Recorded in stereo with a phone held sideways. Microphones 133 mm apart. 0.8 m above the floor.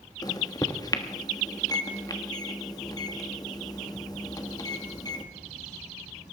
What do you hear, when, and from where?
0.2 s a microwave: 30° left (ahead or behind), 1.3 m